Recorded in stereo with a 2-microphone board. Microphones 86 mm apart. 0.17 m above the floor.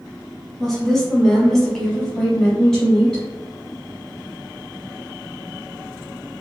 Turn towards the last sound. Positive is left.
turn(degrees=5)  # may be behind; listen again after turning